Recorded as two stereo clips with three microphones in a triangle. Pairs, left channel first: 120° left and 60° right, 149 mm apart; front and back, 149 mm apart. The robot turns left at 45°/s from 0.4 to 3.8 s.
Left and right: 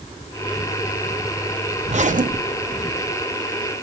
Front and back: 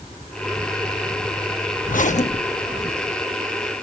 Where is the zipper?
20° right, 0.7 m; by 2.8 s 65° right, 0.7 m.